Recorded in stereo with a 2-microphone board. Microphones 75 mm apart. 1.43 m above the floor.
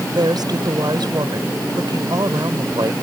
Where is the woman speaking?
70° right (ahead or behind).